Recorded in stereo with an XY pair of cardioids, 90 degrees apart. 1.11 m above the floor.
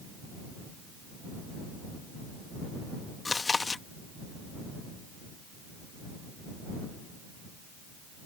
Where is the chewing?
35° left.